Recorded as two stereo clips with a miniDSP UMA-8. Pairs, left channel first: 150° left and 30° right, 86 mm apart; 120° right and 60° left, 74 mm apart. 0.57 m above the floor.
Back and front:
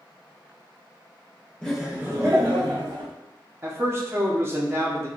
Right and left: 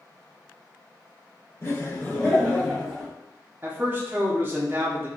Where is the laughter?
140° right, 0.9 m; by 3.1 s 40° right, 1.9 m.